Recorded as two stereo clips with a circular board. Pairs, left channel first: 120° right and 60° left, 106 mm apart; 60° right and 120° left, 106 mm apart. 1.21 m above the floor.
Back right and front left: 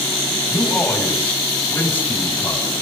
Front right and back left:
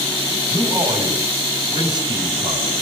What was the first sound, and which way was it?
A man speaking, 165° left.